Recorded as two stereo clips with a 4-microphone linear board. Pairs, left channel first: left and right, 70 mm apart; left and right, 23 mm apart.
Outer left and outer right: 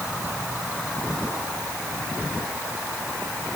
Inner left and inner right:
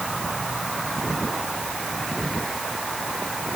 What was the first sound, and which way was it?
Only background noise.